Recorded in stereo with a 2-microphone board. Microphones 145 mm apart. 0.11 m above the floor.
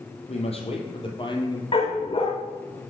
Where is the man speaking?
45° left (ahead or behind), 3.5 m; by 1.6 s 30° left (ahead or behind), 2.5 m.